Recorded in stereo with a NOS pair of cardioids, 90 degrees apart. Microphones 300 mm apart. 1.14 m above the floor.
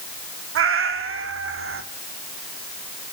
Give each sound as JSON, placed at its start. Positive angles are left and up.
{"t": 0.6, "sound": "a cat meowing", "azimuth_deg": -45, "distance_m": 1.5}